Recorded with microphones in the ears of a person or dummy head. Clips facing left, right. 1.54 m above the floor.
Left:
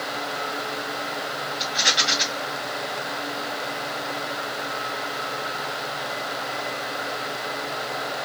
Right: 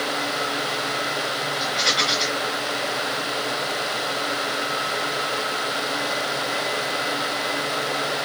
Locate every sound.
1.6 s a rattle: 35° left (ahead or behind), 2.0 m